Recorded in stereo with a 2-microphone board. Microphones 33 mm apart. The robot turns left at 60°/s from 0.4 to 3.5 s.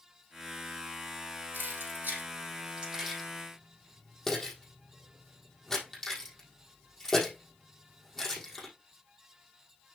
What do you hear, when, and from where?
1.5 s keys jangling: 70° right (ahead or behind), 4 m; by 8.7 s 10° left (ahead or behind), 4 m